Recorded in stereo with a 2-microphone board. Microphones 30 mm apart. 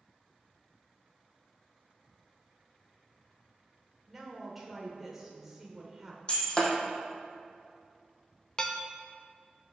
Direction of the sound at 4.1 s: 10° right (ahead or behind).